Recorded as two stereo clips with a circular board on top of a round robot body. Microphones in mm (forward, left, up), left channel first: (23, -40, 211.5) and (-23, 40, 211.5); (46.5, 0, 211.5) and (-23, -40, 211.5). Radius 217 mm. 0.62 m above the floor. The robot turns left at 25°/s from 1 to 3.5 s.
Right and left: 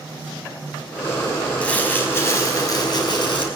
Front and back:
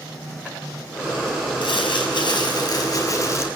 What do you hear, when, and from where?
1.6 s crumpling: 15° left, 5 m; by 3.5 s 30° right, 5 m